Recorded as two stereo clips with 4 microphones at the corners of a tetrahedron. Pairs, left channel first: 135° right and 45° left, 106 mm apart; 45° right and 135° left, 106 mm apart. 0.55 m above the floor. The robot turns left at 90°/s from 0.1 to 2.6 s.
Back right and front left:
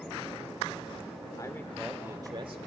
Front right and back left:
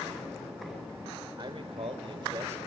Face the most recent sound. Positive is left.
turn(degrees=65)